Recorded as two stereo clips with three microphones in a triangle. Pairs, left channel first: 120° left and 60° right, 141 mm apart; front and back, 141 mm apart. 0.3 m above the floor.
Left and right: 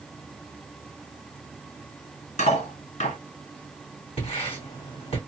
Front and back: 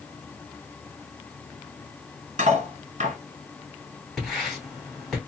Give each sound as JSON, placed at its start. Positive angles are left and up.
{"t": 2.4, "sound": "cutlery clinking", "azimuth_deg": 150, "distance_m": 2.5}
{"t": 4.2, "sound": "writing", "azimuth_deg": 90, "distance_m": 2.0}